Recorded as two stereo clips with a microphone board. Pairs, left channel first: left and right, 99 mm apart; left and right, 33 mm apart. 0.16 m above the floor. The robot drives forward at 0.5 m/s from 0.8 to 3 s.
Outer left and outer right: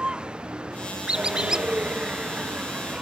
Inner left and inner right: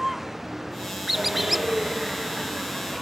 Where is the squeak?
10° right (ahead or behind); by 1.7 s 5° right (ahead or behind).